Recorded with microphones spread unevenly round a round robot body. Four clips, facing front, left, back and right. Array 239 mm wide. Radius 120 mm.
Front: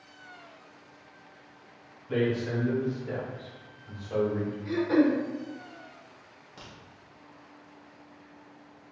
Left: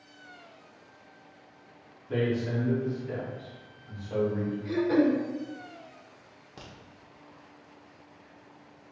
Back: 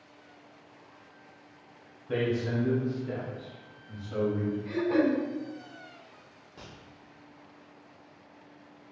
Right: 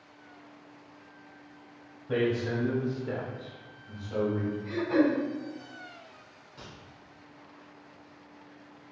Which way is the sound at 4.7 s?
60° left.